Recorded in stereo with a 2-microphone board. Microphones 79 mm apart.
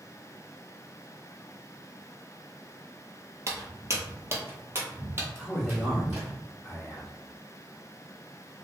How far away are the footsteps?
About 1.4 m.